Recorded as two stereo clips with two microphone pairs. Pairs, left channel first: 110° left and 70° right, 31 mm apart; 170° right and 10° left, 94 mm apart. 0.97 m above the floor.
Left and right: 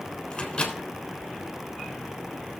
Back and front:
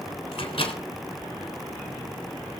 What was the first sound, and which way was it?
A microwave, 170° left.